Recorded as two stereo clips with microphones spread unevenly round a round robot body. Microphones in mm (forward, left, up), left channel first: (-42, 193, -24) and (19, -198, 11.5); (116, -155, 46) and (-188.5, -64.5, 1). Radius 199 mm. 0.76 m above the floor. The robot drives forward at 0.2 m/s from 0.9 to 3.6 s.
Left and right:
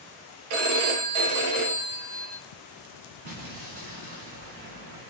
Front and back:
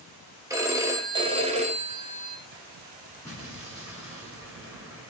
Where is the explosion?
105° right, 1.4 m; by 5.1 s 110° right, 1.4 m.